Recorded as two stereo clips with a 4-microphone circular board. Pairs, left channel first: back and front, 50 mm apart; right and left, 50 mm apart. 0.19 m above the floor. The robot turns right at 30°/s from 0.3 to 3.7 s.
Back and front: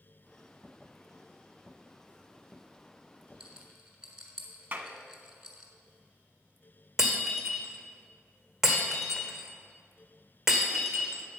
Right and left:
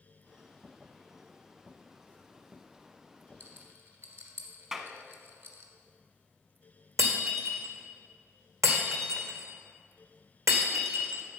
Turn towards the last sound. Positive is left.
turn(degrees=80)